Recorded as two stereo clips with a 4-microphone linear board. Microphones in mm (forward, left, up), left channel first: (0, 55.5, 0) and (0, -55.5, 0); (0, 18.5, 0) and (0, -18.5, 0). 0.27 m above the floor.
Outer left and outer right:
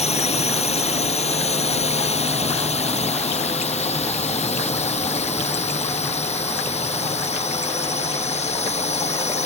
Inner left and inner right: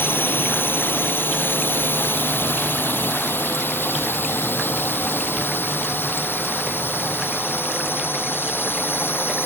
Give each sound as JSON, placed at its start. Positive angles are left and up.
{"t": 0.0, "sound": "a drone", "side_deg": 75}